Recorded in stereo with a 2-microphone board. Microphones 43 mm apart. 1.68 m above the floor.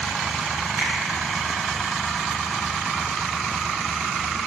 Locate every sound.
0.8 s a finger snap: 50° right (ahead or behind), 4.5 m